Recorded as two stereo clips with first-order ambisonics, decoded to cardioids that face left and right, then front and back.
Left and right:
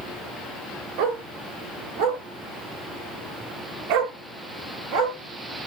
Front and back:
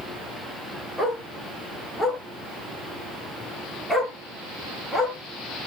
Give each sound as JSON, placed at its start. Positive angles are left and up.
{"t": 1.0, "sound": "a dog barking", "azimuth_deg": -90, "distance_m": 3.0}